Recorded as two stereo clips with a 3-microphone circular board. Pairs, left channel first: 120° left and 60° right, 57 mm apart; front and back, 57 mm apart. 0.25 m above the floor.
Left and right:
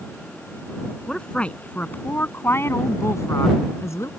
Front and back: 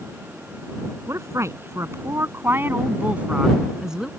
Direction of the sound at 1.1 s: 170° right.